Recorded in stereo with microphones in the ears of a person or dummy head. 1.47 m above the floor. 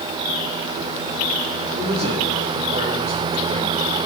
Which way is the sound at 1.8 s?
35° right (ahead or behind).